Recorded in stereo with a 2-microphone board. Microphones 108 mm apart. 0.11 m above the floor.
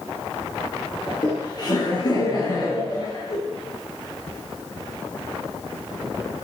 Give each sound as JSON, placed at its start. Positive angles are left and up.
{"t": 1.1, "sound": "laughter", "side_deg": 40, "distance_m": 2.5}